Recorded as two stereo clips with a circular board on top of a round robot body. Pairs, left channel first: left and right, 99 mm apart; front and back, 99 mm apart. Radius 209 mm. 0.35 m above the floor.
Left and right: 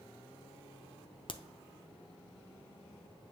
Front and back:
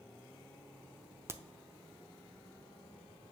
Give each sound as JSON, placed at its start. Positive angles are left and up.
{"t": 1.3, "sound": "a crack", "azimuth_deg": 115, "distance_m": 1.0}